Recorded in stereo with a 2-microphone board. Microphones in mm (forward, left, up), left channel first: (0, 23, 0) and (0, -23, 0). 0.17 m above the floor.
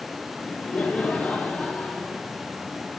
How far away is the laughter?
About 4 m.